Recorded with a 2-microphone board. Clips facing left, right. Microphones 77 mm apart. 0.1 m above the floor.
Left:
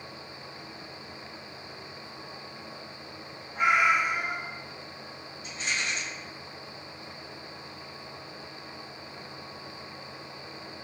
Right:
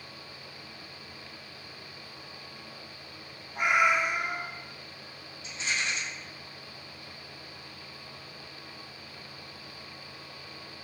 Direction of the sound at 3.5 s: 15° right (ahead or behind).